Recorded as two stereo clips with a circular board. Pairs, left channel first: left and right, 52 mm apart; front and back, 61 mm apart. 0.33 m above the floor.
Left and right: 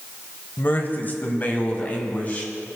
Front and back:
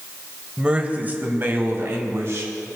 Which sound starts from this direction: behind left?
A man speaking, at 0.6 s.